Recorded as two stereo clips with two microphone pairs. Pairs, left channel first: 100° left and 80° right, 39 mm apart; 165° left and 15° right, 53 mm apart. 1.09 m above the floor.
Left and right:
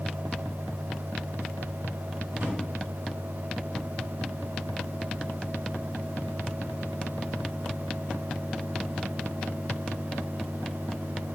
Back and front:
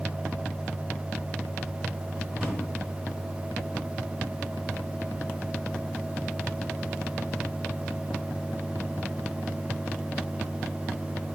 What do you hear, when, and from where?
2.3 s a drawer: 90° right, 4 m